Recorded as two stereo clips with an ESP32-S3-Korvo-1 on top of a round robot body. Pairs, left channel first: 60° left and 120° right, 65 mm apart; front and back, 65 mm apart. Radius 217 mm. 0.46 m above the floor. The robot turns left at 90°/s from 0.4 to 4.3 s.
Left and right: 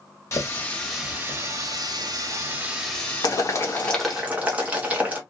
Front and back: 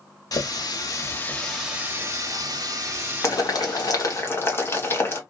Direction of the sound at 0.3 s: 15° left.